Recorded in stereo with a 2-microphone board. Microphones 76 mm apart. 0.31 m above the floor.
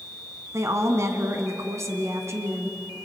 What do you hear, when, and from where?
0.5 s a woman speaking: 40° right (ahead or behind), 2 m